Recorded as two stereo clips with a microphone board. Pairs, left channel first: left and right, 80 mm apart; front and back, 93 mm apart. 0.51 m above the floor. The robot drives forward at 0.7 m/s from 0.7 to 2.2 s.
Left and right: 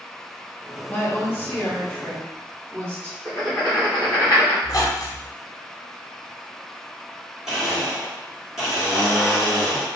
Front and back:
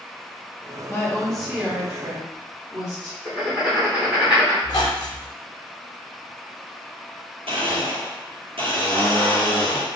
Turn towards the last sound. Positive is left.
turn(degrees=-175)